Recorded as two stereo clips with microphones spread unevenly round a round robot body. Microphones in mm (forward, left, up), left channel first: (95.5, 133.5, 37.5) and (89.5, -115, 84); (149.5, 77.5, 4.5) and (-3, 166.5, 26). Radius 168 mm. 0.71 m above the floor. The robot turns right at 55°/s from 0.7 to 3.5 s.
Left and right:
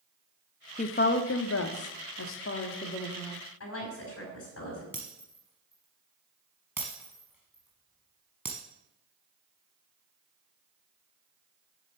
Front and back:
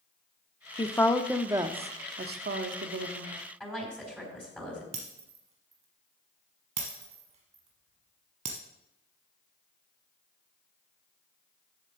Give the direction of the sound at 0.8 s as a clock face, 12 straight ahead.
11 o'clock.